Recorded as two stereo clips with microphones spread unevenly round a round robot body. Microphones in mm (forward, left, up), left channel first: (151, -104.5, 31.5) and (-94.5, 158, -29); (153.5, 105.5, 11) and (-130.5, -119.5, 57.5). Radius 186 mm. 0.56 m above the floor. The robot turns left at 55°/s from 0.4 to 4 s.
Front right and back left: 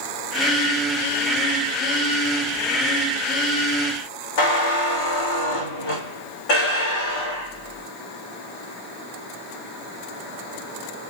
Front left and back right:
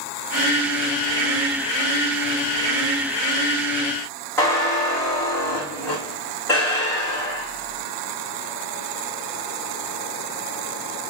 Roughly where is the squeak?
Ahead right.